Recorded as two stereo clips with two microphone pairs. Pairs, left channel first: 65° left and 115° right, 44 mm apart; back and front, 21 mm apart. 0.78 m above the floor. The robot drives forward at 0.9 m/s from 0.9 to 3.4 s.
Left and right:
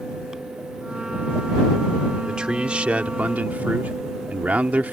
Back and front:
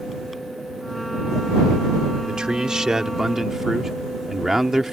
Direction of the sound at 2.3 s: 50° right.